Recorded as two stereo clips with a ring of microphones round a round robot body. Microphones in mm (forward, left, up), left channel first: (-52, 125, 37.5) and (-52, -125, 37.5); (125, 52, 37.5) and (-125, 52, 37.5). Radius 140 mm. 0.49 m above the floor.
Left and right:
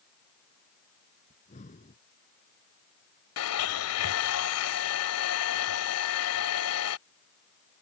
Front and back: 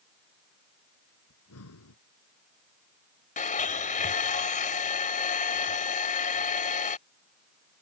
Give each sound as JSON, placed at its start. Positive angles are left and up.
{"t": 1.3, "sound": "breathing", "azimuth_deg": 25}
{"t": 3.4, "sound": "a blender", "azimuth_deg": 60}